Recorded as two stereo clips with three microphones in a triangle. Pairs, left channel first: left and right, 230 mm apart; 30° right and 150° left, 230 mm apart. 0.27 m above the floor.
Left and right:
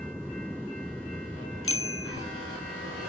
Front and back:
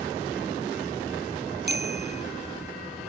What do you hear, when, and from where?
1.6 s a bicycle bell: 105° left